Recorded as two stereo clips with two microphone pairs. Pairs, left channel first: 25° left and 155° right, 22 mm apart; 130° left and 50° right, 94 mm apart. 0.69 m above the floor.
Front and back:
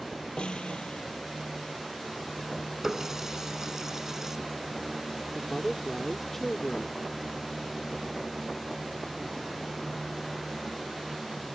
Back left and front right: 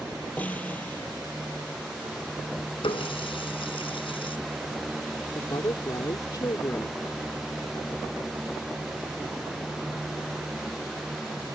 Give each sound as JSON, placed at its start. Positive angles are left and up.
{"t": 0.4, "sound": "a snare drum", "azimuth_deg": 60}
{"t": 2.8, "sound": "a running tap", "azimuth_deg": 135}
{"t": 5.3, "sound": "a woman speaking", "azimuth_deg": 100}